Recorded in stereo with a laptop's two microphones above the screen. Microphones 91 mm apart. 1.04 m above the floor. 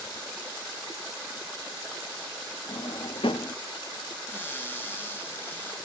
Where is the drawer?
75° left (ahead or behind), 0.8 m.